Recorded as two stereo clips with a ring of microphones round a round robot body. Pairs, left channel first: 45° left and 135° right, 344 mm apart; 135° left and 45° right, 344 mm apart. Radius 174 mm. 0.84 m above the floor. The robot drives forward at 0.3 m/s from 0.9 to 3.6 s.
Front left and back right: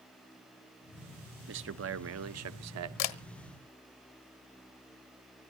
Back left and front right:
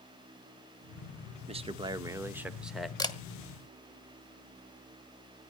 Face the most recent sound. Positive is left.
turn(degrees=65)